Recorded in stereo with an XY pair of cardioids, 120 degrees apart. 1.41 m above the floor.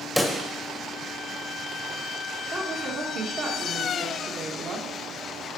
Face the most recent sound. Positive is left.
turn(degrees=-45)